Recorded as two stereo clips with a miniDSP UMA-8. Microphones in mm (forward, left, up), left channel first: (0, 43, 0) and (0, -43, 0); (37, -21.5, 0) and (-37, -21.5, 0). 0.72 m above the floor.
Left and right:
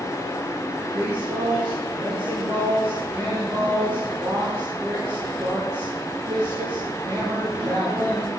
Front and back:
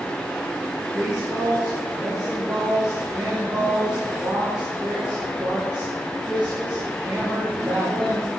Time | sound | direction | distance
0.9 | a woman speaking | 105° right | 7 m